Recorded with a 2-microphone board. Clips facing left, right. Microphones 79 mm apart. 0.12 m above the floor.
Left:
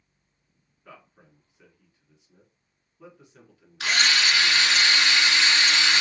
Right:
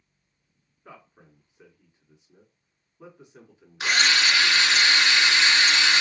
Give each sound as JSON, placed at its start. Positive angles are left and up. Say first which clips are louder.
{"t": 0.8, "sound": "a man speaking", "louder": "right 1 dB", "side_deg": -20, "distance_m": 1.2}
{"t": 3.8, "sound": "a drill", "louder": "right 1 dB", "side_deg": -20, "distance_m": 1.8}